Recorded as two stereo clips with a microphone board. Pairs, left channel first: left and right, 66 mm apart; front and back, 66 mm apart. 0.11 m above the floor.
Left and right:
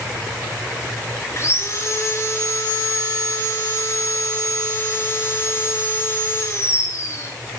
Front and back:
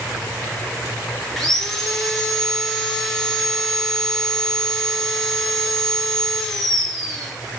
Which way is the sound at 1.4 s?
85° left.